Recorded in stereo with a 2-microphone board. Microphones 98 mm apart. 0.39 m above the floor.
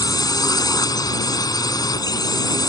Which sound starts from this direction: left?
A drone, at 0.0 s.